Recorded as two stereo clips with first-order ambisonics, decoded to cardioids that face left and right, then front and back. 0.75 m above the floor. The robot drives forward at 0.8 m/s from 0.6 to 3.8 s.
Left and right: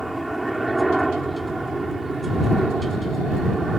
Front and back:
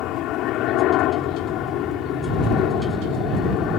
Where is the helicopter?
10° right; by 3.8 s 20° right.